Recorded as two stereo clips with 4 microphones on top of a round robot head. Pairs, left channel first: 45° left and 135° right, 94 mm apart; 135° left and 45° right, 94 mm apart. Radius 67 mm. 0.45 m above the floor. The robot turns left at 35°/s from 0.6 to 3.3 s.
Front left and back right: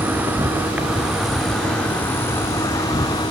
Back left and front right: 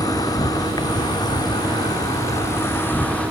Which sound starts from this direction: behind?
An insect, at 0.0 s.